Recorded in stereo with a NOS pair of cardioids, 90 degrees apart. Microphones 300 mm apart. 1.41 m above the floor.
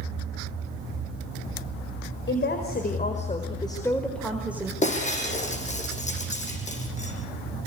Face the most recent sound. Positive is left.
turn(degrees=25)